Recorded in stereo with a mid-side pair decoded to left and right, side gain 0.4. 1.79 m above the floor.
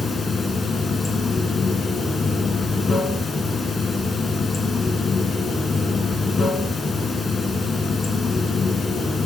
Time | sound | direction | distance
0.0 | running water | 50° left | 1.5 m